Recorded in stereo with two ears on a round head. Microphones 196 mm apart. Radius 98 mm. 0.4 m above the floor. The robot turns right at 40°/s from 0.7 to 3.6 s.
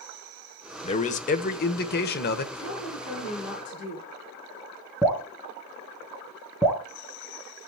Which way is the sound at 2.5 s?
40° left.